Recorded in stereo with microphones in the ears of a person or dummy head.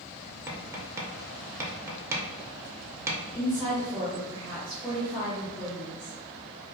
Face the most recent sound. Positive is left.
turn(degrees=20)  # may be behind; listen again after turning